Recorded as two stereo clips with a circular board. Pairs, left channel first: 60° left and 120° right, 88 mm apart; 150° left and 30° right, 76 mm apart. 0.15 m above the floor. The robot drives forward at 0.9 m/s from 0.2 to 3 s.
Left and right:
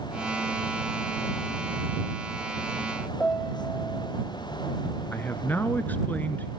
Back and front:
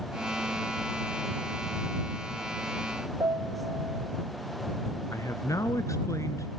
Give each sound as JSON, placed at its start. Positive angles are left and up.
{"t": 3.2, "sound": "a piano", "azimuth_deg": -15, "distance_m": 1.6}
{"t": 5.1, "sound": "a man speaking", "azimuth_deg": 125, "distance_m": 1.6}